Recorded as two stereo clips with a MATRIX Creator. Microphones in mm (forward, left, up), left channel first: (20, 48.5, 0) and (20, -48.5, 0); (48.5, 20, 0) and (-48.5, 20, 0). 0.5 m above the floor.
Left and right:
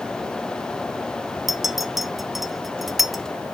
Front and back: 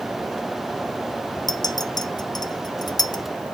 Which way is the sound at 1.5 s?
5° right.